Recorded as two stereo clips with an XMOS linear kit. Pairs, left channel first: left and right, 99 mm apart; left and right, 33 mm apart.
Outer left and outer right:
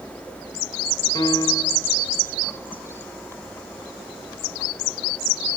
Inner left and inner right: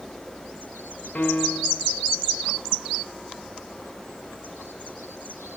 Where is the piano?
50° left (ahead or behind), 1.4 m.